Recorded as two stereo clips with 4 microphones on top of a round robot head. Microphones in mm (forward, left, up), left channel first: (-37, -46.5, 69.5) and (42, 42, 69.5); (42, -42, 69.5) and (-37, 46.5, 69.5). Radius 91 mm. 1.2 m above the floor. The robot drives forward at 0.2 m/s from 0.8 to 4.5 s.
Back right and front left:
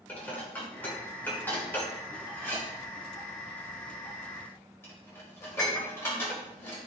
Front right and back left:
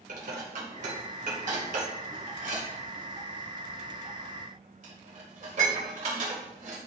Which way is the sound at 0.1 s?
150° left.